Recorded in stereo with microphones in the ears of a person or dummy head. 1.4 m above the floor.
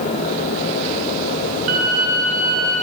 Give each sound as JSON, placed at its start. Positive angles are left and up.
{"t": 1.7, "sound": "a violin", "side_deg": -40, "distance_m": 0.6}